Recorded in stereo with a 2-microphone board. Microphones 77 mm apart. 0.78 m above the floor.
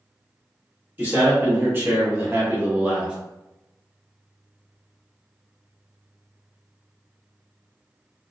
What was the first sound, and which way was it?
A man speaking, 25° right (ahead or behind).